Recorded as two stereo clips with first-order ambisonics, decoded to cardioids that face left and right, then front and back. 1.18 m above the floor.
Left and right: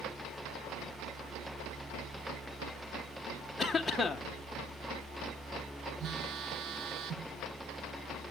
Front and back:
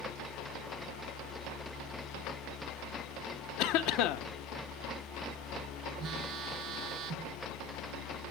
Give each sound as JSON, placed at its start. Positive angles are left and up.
{"t": 3.6, "sound": "a cough", "azimuth_deg": 10, "distance_m": 0.8}
{"t": 6.0, "sound": "a phone buzzing", "azimuth_deg": -135, "distance_m": 0.5}